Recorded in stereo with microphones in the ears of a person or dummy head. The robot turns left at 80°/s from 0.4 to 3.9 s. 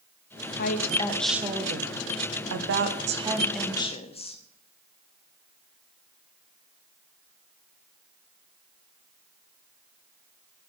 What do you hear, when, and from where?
0.6 s a woman speaking: 60° left, 1.4 m; by 4.4 s 150° left, 1.4 m